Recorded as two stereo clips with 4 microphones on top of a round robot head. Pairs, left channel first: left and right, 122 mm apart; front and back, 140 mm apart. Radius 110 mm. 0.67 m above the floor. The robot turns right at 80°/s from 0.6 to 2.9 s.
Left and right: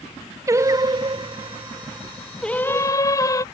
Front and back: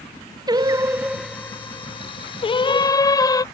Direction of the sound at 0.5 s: 140° right.